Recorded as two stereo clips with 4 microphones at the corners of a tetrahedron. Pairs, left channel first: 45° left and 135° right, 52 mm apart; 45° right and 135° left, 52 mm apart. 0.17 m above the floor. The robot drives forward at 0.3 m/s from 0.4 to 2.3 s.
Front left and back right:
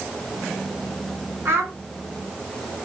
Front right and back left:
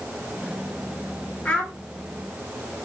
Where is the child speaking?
110° right, 1.8 m.